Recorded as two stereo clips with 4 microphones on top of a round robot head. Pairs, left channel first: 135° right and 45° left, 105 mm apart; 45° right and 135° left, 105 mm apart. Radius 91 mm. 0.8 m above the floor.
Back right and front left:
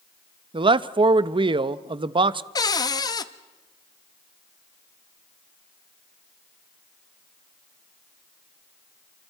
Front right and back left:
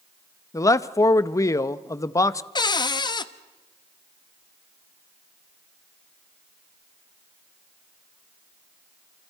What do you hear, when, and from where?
0.5 s a man speaking: 10° left, 0.7 m
2.5 s a cupboard door: 85° right, 0.9 m